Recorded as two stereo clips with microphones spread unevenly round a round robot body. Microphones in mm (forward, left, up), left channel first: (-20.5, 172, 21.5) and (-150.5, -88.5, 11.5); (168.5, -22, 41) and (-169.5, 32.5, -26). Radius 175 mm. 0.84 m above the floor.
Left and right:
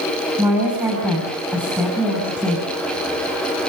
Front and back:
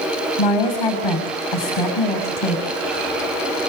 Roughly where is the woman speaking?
Ahead right.